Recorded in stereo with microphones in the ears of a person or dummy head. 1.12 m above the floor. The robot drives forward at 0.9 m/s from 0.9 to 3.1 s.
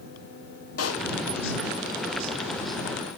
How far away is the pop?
About 1.8 m.